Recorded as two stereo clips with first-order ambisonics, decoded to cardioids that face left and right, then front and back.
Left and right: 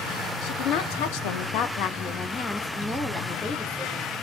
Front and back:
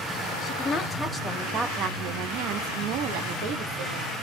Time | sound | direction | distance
0.4 | a woman speaking | 70° left | 0.9 m